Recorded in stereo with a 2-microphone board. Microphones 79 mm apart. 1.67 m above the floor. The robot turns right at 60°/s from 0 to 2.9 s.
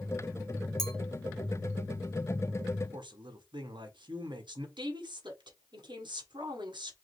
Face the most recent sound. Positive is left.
turn(degrees=-70)  # may be behind; listen again after turning